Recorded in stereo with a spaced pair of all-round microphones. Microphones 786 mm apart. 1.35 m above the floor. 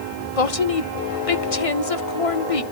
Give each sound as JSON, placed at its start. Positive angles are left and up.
{"t": 0.4, "sound": "a woman speaking", "side_deg": 45, "distance_m": 1.0}